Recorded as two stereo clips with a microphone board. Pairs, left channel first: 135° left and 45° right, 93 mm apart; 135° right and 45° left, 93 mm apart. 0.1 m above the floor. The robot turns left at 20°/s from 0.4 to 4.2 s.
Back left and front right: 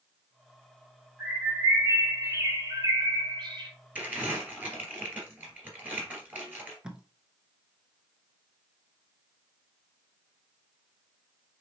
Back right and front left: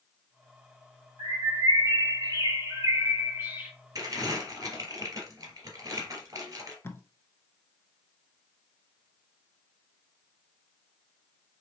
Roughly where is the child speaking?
No child speaking in this recording.